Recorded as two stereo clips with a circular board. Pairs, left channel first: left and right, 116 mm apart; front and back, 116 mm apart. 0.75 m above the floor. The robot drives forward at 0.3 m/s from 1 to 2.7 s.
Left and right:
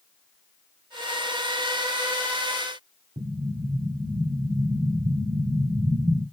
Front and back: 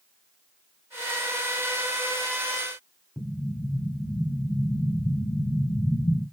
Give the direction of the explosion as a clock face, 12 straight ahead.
3 o'clock.